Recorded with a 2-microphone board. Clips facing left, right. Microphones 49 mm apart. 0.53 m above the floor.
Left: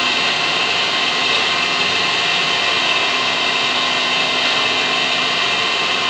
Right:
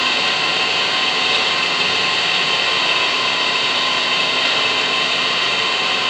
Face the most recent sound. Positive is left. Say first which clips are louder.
# even
turn(degrees=-10)  # may be behind; listen again after turning